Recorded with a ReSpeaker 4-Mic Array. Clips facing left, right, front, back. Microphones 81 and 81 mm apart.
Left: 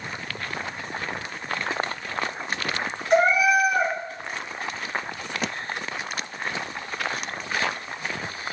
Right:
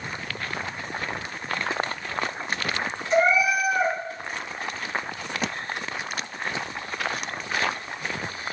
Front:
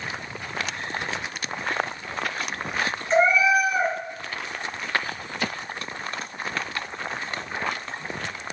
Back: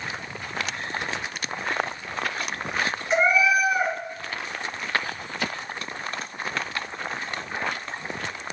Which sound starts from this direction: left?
A cat meowing, at 3.1 s.